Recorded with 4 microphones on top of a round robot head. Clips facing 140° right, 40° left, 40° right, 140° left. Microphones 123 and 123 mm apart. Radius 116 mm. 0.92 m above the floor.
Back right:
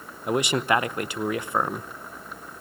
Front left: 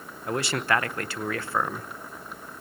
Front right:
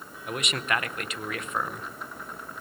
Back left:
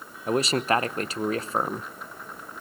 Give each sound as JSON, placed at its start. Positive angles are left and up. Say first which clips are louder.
{"t": 0.3, "sound": "a man speaking", "louder": "back right 3 dB, back left 7 dB", "azimuth_deg": 160, "distance_m": 1.0}